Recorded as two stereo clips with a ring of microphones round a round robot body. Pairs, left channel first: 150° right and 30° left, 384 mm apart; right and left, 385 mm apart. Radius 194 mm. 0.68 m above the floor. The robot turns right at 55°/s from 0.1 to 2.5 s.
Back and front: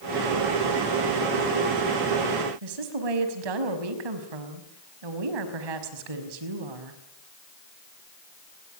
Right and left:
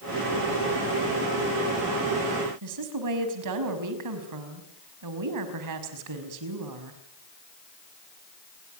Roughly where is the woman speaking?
Ahead left.